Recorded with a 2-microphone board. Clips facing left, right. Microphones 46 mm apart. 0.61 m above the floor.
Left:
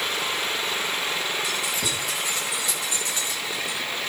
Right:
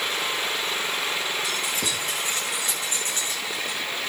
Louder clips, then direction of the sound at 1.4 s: Even; 50° right (ahead or behind).